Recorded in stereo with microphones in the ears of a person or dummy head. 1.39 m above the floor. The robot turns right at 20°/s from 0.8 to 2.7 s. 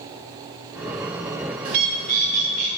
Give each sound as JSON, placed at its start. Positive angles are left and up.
{"t": 1.6, "sound": "a bird", "side_deg": -55, "distance_m": 1.6}